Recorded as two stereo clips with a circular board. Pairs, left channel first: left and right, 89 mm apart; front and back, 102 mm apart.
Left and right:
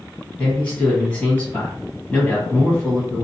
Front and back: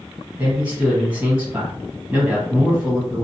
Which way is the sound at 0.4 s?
135° left.